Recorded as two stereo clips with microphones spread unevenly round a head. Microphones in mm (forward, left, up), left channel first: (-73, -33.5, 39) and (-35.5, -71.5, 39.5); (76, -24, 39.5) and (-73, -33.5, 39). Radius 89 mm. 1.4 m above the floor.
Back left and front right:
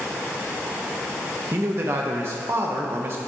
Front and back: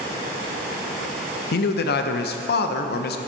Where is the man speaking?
10° left, 0.6 m.